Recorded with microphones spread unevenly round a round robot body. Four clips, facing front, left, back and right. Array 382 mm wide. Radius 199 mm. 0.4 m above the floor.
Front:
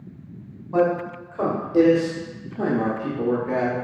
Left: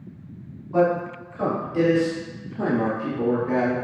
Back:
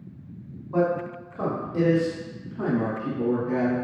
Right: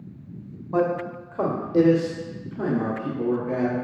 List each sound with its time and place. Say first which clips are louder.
0.7 s a man speaking: left 3 dB, front 3 dB; 70° right, 1.6 m; by 3.8 s 45° left, 1.2 m